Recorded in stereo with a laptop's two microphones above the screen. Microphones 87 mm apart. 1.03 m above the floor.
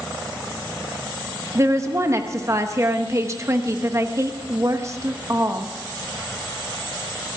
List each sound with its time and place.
1.6 s a woman speaking: 35° right (ahead or behind), 1.0 m